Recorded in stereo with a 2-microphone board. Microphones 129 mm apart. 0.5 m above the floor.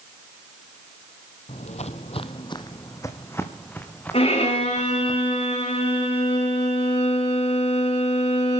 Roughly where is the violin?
Left.